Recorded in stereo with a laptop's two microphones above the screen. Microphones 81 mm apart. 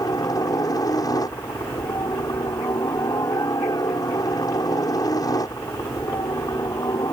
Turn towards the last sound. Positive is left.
turn(degrees=50)  # may be behind; listen again after turning